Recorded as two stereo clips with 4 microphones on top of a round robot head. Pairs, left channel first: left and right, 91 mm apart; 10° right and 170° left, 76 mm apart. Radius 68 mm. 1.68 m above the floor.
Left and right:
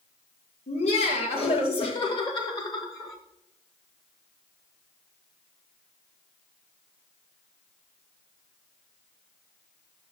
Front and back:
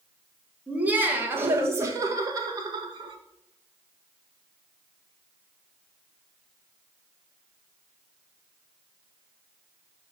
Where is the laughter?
95° left, 2 m; by 3.2 s 145° left, 1.9 m.